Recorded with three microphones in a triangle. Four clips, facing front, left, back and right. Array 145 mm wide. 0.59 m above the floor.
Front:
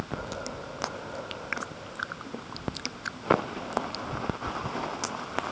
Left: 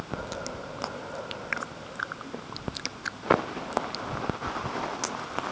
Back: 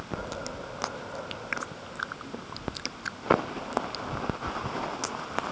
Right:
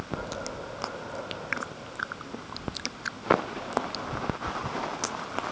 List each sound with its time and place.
Only background noise.